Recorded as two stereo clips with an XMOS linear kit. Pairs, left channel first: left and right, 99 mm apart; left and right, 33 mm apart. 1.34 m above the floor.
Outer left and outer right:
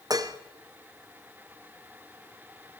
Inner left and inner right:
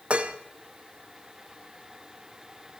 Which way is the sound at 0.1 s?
40° right (ahead or behind).